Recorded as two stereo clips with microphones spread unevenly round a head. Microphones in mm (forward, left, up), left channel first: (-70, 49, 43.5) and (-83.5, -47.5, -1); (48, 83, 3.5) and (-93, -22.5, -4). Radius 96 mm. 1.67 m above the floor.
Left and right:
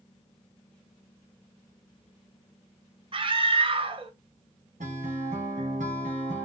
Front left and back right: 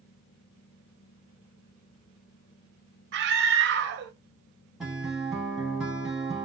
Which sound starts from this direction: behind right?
A scream, at 3.1 s.